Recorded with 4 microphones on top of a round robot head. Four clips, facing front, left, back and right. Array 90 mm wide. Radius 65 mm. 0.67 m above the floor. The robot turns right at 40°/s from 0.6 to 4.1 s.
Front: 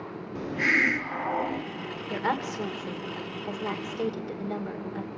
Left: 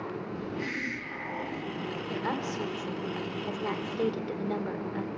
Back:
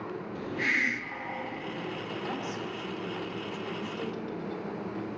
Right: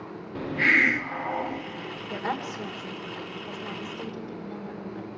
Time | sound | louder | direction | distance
0.3 | a hiss | right 16 dB, front 5 dB | 60° right | 0.6 m
2.1 | a woman speaking | right 2 dB, front 10 dB | 10° right | 2.5 m